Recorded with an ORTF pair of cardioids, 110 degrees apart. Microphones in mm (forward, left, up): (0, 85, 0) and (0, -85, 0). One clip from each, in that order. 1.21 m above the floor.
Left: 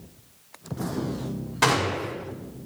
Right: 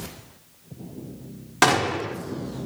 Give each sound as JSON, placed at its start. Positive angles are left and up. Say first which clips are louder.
{"t": 1.6, "sound": "a gunshot", "louder": "right 3 dB", "azimuth_deg": -55, "distance_m": 2.5}